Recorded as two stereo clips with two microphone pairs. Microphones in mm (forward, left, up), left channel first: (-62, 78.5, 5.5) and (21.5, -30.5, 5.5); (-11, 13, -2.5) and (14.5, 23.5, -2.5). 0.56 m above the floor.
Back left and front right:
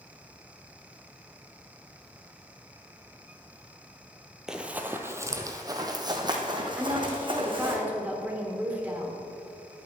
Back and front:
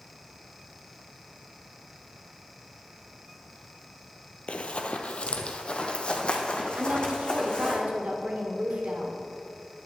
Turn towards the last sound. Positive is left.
turn(degrees=25)